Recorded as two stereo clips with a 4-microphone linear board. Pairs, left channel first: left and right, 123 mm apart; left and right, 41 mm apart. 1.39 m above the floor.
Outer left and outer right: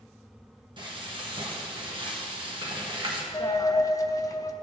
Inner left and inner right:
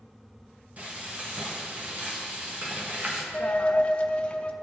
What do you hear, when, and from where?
0.8 s frying: 40° right (ahead or behind), 1.4 m
3.3 s a dropped coin: 25° left (ahead or behind), 0.7 m